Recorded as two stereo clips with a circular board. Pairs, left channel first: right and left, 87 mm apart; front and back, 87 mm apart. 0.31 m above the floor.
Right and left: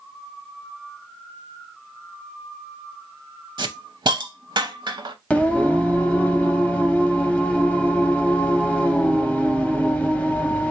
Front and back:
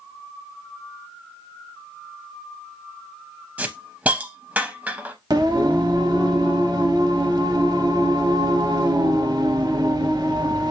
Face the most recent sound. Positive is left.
turn(degrees=-160)